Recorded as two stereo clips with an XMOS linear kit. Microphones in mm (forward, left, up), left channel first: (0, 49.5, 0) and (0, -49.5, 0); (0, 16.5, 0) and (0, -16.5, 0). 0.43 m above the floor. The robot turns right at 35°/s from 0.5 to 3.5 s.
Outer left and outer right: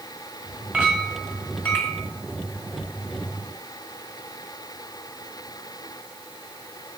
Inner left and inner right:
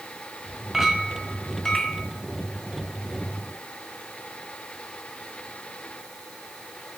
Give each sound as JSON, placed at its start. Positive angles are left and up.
{"t": 0.7, "sound": "a clink", "azimuth_deg": -15, "distance_m": 1.4}